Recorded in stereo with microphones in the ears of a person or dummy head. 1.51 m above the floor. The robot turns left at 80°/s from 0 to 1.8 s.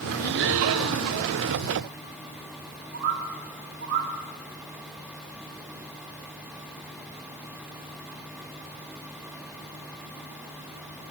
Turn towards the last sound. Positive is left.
turn(degrees=-65)  # may be behind; listen again after turning